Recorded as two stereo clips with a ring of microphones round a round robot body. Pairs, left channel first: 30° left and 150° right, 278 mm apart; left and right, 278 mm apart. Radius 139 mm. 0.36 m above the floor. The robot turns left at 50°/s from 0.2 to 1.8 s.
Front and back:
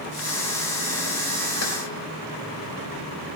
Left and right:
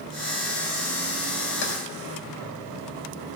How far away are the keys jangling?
About 3.5 m.